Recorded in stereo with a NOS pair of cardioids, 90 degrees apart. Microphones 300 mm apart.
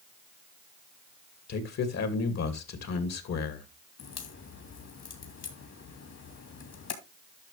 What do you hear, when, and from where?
1.5 s a man speaking: 55° left, 2.5 m
4.0 s a crack: 55° left, 3 m